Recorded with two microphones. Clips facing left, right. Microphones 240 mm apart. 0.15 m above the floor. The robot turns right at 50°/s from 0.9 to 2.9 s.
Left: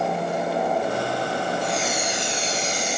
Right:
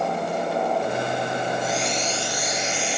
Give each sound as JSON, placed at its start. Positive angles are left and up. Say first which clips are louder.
{"t": 1.6, "sound": "a hiss", "louder": "even", "azimuth_deg": -10, "distance_m": 1.9}